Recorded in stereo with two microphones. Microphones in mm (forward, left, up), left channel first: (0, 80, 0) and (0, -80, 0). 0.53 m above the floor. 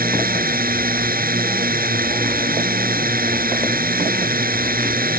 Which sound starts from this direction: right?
A drone, at 0.0 s.